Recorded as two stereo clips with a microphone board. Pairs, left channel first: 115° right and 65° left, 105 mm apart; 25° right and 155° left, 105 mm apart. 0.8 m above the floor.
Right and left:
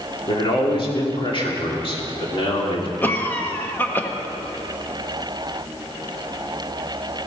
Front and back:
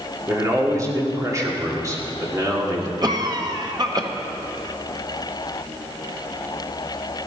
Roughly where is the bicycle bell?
No bicycle bell in this recording.